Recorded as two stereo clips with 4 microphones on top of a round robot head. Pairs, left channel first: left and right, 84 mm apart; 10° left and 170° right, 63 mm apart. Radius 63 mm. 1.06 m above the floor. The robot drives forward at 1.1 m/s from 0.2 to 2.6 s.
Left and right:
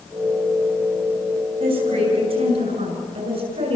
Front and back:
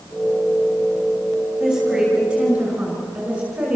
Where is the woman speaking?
90° right, 7 m; by 3.8 s 100° right, 7 m.